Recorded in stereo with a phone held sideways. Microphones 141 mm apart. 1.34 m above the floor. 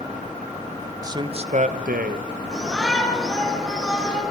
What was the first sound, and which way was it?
A man speaking, 25° right (ahead or behind).